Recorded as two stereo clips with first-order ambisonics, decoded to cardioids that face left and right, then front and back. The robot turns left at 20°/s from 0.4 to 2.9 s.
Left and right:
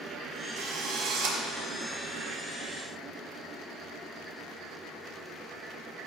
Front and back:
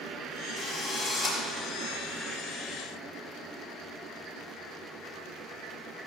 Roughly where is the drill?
Right.